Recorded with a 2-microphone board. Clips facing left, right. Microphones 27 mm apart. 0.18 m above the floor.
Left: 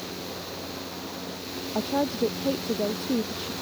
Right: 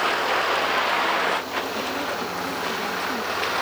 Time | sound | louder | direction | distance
0.0 | a vehicle | right 14 dB | 80° right | ?
1.8 | a woman speaking | even | 45° left (ahead or behind) | ?